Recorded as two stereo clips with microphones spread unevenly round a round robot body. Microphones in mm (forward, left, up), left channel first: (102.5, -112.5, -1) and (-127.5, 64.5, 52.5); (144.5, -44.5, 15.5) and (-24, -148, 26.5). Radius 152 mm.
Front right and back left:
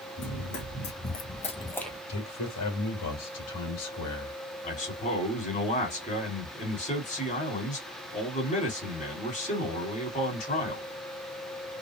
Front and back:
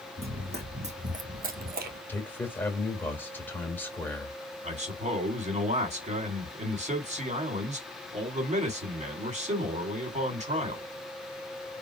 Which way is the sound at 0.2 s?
90° right.